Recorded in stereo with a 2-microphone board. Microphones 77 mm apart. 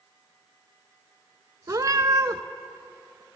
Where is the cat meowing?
50° right (ahead or behind), 0.6 m.